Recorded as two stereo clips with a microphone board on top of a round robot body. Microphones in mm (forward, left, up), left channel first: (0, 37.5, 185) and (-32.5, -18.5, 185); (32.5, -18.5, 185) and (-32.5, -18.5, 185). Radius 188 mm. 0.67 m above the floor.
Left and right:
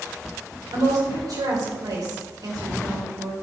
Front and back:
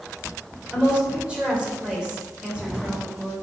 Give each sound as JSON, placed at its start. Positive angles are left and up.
{"t": 0.7, "sound": "a woman speaking", "azimuth_deg": -105, "distance_m": 3.5}